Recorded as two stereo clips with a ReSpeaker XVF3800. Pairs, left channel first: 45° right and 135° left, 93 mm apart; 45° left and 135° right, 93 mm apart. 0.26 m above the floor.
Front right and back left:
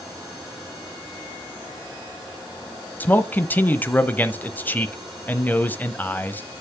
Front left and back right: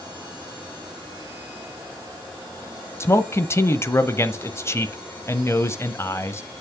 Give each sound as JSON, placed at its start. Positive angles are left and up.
{"t": 3.0, "sound": "a man speaking", "azimuth_deg": 10, "distance_m": 1.0}